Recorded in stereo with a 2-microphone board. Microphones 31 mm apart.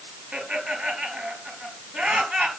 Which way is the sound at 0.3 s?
35° right (ahead or behind).